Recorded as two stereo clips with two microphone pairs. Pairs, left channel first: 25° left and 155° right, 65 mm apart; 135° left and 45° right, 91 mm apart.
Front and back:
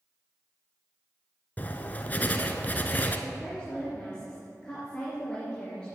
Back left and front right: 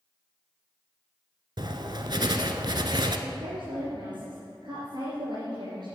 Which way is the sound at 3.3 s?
50° right.